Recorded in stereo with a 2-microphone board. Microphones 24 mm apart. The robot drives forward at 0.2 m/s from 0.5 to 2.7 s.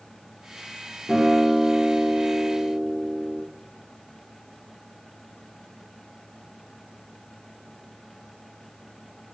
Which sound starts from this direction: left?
A guitar, at 1.1 s.